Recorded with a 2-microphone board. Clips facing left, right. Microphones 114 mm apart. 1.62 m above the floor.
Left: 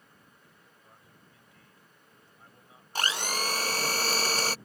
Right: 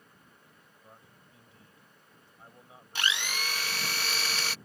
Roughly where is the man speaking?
Right.